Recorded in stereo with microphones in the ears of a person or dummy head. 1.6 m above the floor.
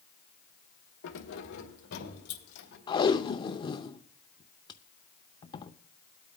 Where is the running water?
No running water in this recording.